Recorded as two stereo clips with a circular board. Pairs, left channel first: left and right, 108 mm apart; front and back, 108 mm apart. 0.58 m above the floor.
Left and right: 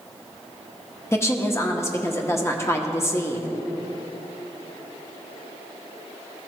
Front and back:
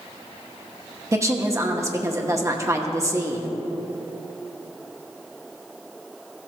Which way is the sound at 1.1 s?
140° left.